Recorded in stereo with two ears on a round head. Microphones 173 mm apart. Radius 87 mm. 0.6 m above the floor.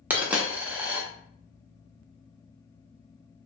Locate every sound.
0.1 s a dropped coin: 10° right (ahead or behind), 0.5 m